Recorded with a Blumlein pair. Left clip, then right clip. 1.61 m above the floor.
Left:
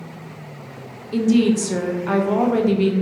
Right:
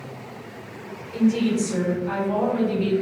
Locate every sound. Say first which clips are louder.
1.1 s a woman speaking: left 4 dB; 35° left, 0.6 m